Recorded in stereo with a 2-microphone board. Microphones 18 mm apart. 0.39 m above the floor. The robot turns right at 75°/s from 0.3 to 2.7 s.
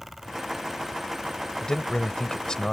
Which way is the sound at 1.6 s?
50° left.